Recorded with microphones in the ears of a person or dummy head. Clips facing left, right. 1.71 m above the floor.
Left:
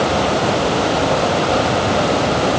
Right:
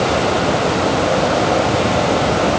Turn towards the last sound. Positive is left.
No sound to turn to.